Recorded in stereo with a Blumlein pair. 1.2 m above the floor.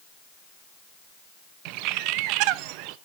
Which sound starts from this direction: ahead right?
A bird, at 1.6 s.